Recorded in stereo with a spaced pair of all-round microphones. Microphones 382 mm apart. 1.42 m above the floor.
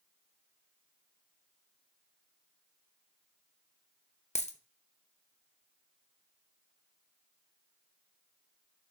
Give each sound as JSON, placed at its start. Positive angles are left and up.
{"t": 4.3, "sound": "a dropped coin", "side_deg": 20, "distance_m": 0.7}